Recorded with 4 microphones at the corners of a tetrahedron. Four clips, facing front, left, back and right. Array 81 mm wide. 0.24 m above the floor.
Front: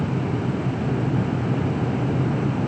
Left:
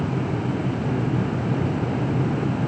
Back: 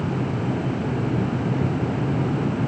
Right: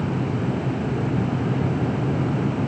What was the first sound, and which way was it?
Only background noise.